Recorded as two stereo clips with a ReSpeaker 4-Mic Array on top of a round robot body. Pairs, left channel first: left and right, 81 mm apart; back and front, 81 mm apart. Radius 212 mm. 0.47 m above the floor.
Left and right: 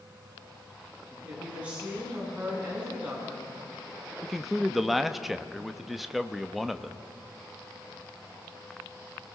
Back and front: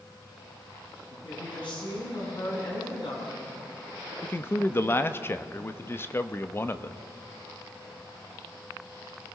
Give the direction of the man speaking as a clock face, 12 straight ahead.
6 o'clock.